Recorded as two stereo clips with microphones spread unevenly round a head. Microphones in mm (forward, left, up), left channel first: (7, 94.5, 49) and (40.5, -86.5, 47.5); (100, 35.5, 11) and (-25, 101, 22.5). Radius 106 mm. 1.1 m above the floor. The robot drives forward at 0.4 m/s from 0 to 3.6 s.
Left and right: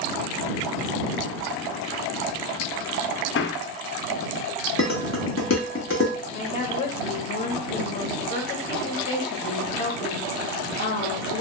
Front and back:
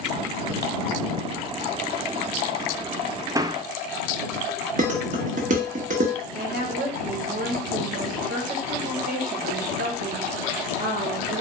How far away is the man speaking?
About 0.5 m.